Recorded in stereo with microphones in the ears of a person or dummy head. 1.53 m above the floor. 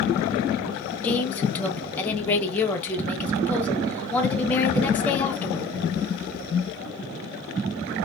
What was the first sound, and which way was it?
A woman speaking, 10° left (ahead or behind).